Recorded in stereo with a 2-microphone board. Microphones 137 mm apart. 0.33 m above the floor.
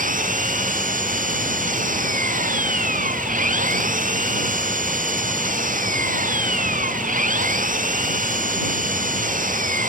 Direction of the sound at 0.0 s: 70° right (ahead or behind).